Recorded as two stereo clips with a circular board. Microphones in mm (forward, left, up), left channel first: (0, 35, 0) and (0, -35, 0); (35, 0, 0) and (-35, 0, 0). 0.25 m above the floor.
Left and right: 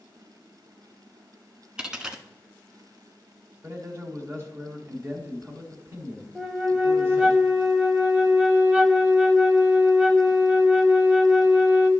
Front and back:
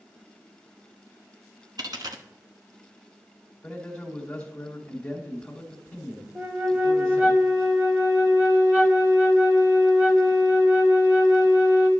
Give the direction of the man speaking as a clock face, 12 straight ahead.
2 o'clock.